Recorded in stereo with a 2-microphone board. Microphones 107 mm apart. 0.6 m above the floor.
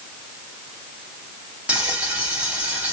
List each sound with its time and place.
1.7 s frying: 15° right (ahead or behind), 1.4 m